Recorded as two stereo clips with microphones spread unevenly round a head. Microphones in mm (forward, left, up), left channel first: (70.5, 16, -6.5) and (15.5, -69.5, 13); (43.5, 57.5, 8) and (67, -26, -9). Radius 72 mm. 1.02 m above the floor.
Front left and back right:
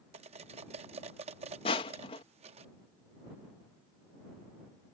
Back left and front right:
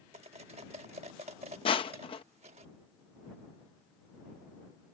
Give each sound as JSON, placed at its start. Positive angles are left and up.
{"t": 0.1, "sound": "cutlery clinking", "azimuth_deg": -115}
{"t": 1.6, "sound": "crushing", "azimuth_deg": 90}